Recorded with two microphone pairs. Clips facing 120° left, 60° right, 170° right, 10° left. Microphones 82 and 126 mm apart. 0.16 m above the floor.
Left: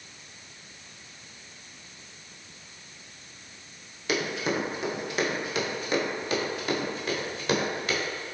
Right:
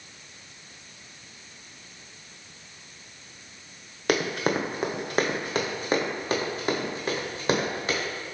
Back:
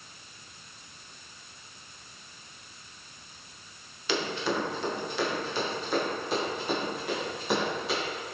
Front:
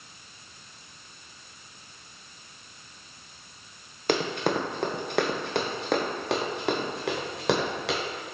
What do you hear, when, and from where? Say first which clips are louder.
4.1 s running footsteps: right 3 dB, front 4 dB; 30° right, 1.5 m; by 8.0 s 5° right, 3.5 m